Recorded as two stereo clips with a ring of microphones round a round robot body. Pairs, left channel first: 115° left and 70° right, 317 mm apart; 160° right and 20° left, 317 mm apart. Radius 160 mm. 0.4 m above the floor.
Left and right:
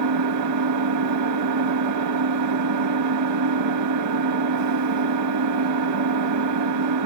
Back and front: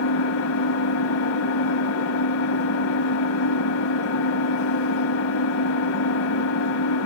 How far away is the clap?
I don't hear a clap.